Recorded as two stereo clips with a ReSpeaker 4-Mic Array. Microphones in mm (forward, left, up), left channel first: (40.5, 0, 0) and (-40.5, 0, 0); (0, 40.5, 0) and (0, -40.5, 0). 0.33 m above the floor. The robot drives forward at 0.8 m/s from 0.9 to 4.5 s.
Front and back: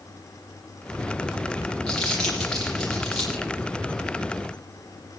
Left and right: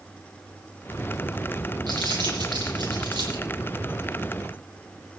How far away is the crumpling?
About 8.5 m.